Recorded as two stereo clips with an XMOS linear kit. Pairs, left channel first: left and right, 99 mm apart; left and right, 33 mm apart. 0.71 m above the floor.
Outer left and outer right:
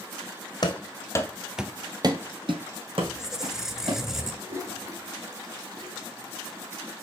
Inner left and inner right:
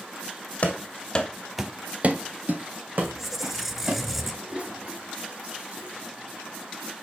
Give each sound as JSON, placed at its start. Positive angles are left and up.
{"t": 0.6, "sound": "running footsteps", "side_deg": 45, "distance_m": 1.5}
{"t": 3.0, "sound": "a squeak", "side_deg": -5, "distance_m": 0.8}
{"t": 4.4, "sound": "a toilet flushing", "side_deg": -40, "distance_m": 2.5}